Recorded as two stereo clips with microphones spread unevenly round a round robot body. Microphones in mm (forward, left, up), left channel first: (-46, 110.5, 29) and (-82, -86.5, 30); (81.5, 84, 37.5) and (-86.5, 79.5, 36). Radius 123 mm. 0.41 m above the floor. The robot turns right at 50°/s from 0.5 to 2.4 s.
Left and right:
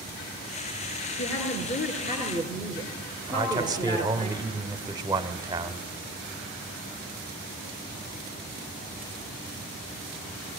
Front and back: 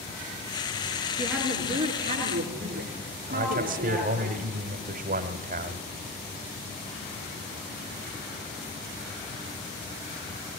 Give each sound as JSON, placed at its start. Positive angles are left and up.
{"t": 1.2, "sound": "a woman speaking", "azimuth_deg": 90, "distance_m": 5.5}
{"t": 3.3, "sound": "a man speaking", "azimuth_deg": -165, "distance_m": 1.6}